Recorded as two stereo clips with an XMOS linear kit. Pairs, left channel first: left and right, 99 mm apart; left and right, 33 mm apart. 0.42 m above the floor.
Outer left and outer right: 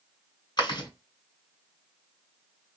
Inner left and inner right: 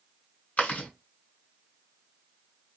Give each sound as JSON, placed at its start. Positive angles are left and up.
{"t": 0.6, "sound": "chewing", "side_deg": 50, "distance_m": 1.7}